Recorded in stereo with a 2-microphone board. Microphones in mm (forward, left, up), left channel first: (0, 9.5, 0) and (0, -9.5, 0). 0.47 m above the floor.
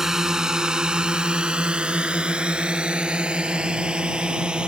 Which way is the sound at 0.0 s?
30° right (ahead or behind).